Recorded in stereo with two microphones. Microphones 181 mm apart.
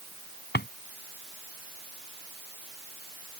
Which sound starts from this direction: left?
A drawer, at 0.5 s.